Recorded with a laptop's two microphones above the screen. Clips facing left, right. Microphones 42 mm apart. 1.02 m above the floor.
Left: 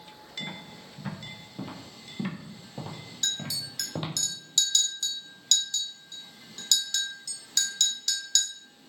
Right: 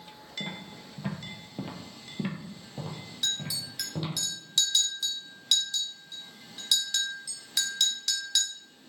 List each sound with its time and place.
0.4 s footsteps: 50° right (ahead or behind), 1.4 m; by 4.1 s 35° left (ahead or behind), 1.6 m
3.2 s a clink: 15° right (ahead or behind), 0.6 m